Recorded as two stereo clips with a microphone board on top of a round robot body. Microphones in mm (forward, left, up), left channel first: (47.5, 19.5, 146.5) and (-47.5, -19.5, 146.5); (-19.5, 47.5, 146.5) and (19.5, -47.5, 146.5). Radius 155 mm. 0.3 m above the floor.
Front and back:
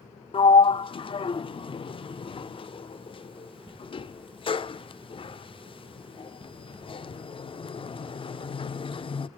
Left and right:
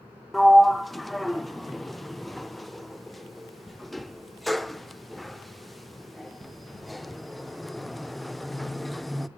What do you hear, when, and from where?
0.3 s a sliding door: 25° left, 0.6 m